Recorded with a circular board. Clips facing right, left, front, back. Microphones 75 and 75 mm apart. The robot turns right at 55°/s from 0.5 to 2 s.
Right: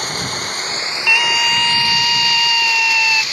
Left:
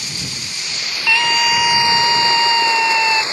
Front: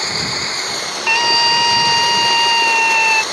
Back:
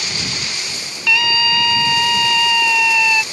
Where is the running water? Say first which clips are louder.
Right 7 dB, front 4 dB; 50° right; by 3.3 s 30° left.